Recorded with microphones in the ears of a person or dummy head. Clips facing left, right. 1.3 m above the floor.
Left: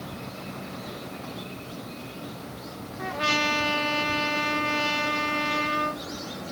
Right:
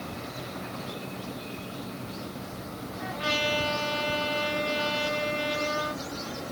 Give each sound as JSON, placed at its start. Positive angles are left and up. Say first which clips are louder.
{"t": 3.0, "sound": "a trumpet", "louder": "left 2 dB", "side_deg": 70, "distance_m": 1.9}